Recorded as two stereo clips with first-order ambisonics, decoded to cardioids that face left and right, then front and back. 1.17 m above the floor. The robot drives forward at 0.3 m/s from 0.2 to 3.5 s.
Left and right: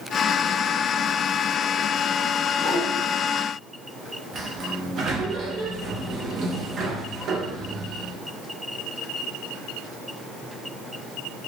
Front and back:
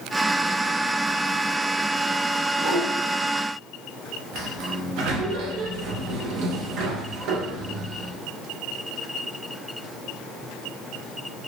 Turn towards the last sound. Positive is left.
turn(degrees=-150)